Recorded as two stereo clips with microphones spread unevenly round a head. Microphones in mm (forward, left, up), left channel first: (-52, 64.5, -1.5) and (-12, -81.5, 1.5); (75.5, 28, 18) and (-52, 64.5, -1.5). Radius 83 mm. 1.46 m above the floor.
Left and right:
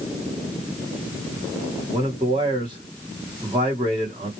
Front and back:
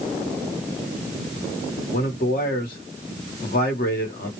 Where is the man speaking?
10° right, 1.3 m.